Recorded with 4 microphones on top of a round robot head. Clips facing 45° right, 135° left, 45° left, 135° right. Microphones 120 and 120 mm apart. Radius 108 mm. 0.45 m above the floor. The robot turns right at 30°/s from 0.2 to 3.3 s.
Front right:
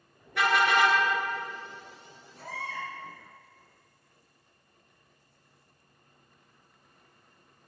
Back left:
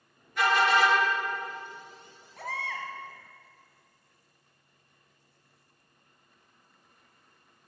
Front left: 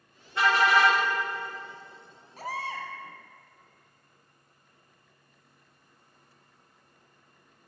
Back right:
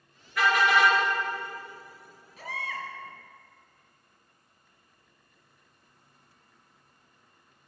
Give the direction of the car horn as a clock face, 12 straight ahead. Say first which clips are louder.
Even, even; 1 o'clock.